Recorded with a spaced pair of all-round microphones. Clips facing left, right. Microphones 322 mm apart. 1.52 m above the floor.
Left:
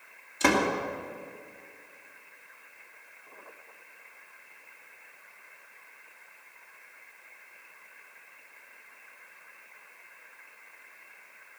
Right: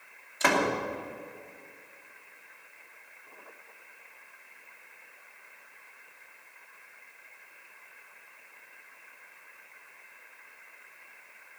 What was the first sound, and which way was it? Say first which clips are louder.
A door slam: left 2 dB; 40° left (ahead or behind).